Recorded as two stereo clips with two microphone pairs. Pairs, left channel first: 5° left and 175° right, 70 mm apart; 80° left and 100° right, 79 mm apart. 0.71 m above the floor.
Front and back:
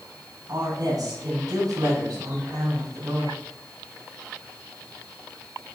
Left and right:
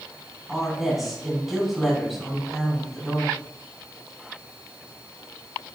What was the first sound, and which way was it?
A woman speaking, 170° left.